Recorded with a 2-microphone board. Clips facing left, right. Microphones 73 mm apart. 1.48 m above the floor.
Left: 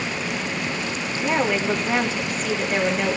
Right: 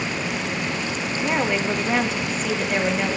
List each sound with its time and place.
1.2 s a woman speaking: centre (ahead or behind), 1.8 m